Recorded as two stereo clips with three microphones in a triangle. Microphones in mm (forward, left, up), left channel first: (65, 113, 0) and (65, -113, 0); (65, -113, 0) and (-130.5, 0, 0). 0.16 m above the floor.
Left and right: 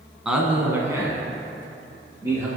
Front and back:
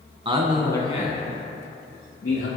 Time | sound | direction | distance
0.2 | a man speaking | 175° right | 1.1 m